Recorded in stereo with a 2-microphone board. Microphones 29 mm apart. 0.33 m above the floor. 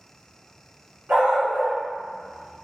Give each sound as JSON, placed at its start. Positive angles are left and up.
{"t": 1.1, "sound": "a dog barking", "side_deg": -70, "distance_m": 1.1}